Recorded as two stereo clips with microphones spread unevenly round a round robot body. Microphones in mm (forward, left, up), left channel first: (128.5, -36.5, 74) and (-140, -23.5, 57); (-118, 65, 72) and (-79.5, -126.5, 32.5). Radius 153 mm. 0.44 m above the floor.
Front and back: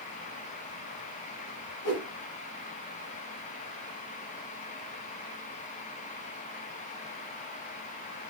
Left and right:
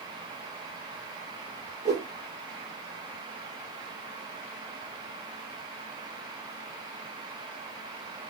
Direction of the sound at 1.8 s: 10° right.